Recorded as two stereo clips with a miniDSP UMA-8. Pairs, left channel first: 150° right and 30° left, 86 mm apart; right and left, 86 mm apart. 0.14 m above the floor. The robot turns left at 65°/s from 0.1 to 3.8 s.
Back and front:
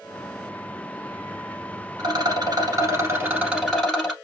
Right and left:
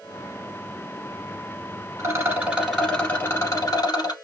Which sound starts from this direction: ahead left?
A rattle, at 2.0 s.